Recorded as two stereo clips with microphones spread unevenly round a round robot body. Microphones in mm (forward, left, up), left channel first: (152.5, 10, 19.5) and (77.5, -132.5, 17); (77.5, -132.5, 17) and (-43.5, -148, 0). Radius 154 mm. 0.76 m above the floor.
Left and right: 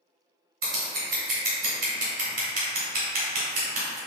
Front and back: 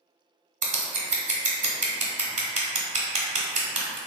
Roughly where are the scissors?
Behind right.